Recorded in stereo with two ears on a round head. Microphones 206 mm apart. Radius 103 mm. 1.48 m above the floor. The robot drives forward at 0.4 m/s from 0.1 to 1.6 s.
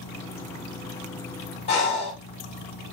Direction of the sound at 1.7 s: 30° left (ahead or behind).